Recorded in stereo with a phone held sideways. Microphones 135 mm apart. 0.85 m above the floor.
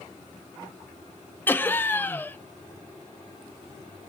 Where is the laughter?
15° left (ahead or behind), 0.8 m.